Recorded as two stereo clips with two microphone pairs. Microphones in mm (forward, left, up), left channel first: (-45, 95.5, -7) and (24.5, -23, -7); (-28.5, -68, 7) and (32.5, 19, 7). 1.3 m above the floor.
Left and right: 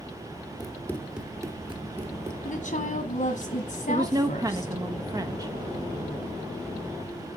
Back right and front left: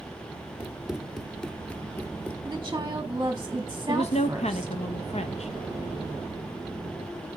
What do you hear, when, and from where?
0.6 s running footsteps: 125° left, 1.4 m; by 2.4 s 55° right, 2 m
2.5 s a woman speaking: 115° left, 1.4 m
3.9 s a woman speaking: 125° right, 1.2 m